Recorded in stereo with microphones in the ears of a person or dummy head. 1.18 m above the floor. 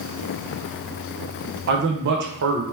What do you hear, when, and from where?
1.7 s a man speaking: 55° right (ahead or behind), 0.8 m